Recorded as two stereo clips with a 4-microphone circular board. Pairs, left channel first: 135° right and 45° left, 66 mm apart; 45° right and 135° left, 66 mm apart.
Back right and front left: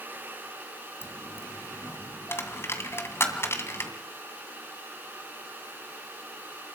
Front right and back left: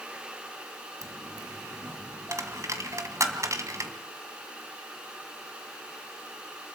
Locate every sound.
1.0 s a dropped coin: 175° left, 2 m